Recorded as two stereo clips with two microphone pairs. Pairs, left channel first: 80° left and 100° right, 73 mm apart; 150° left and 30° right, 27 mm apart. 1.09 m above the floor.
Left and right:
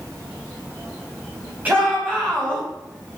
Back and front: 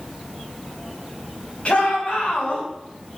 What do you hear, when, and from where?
1.6 s a shout: 170° right, 5.5 m